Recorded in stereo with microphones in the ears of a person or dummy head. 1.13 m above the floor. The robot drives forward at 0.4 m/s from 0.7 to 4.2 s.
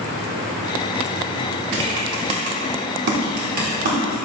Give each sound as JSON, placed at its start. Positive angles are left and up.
{"t": 1.7, "sound": "typing on a keyboard", "side_deg": -65, "distance_m": 1.1}